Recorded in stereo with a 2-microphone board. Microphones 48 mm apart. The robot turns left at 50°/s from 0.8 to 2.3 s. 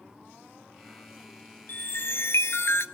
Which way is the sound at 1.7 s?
135° left.